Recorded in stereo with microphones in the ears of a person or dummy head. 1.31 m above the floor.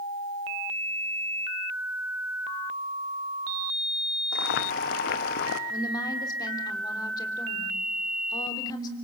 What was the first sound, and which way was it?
Boiling, 60° left (ahead or behind).